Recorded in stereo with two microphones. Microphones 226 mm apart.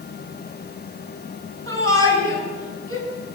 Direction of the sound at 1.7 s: 65° right (ahead or behind).